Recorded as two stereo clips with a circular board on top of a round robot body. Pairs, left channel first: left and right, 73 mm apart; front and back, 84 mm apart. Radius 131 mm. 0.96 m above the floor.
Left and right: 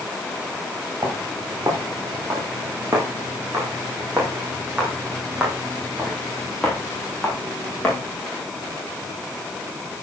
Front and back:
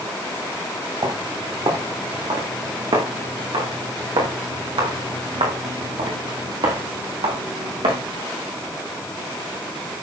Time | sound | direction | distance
1.0 | footsteps | 145° right | 4.5 m